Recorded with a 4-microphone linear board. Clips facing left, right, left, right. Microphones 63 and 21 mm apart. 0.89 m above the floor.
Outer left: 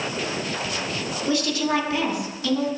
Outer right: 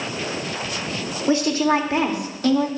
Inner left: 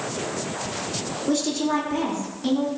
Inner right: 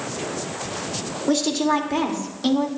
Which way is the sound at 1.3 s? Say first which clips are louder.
Outer right 5 dB, inner right 3 dB; 30° right (ahead or behind).